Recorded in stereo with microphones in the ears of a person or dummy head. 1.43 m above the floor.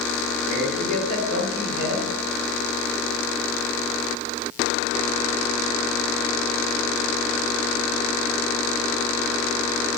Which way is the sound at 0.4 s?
80° right.